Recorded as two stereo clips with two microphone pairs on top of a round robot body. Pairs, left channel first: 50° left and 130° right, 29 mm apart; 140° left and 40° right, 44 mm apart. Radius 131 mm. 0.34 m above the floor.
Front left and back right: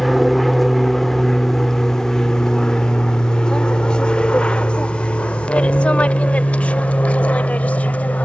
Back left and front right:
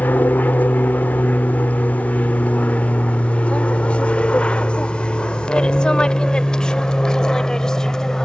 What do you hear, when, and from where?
0.0 s an aircraft: 145° left; by 8.2 s 65° left